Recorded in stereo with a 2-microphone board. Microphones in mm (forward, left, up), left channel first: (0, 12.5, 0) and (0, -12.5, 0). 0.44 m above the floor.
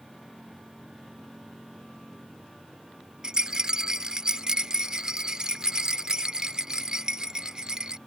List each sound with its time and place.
3.2 s a rattle: 30° right (ahead or behind)